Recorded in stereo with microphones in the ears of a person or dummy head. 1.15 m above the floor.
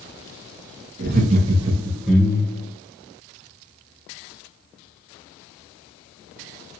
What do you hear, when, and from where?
1.0 s laughter: 45° right (ahead or behind), 0.7 m; by 2.7 s 20° left (ahead or behind), 0.8 m